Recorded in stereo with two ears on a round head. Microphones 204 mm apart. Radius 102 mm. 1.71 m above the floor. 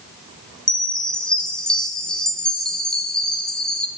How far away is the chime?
About 0.6 m.